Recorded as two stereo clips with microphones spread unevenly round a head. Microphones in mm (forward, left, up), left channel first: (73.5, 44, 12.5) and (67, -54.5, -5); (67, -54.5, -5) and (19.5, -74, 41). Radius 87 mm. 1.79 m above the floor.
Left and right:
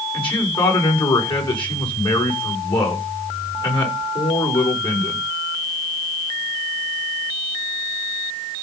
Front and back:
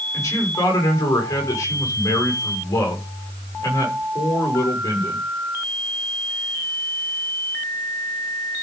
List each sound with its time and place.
0.1 s a man speaking: 55° left, 7 m